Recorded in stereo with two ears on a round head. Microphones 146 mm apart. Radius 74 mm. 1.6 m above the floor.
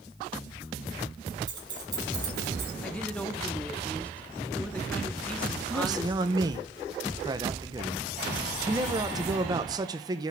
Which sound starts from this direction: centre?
A woman speaking, at 2.8 s.